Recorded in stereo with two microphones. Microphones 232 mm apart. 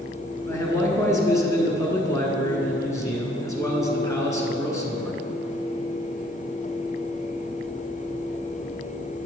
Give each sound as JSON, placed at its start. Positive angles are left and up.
{"t": 0.5, "sound": "a man speaking", "side_deg": 15, "distance_m": 1.3}